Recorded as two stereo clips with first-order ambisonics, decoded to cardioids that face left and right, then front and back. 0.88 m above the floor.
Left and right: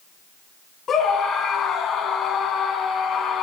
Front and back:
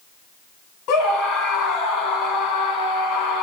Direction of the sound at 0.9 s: 25° left.